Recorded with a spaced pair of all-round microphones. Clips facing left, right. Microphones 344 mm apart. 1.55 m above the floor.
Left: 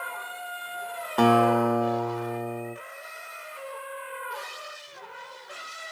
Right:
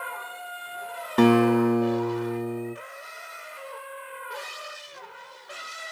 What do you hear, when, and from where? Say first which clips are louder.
1.2 s a guitar: right 3 dB; 30° right (ahead or behind), 0.6 m